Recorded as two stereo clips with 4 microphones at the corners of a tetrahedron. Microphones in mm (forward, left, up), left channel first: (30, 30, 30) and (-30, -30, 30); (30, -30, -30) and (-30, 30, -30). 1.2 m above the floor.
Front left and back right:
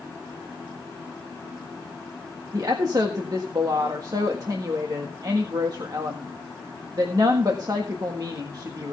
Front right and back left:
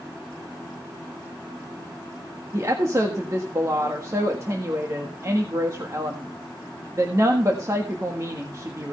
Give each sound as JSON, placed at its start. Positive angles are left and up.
{"t": 2.5, "sound": "a woman speaking", "azimuth_deg": -175, "distance_m": 1.5}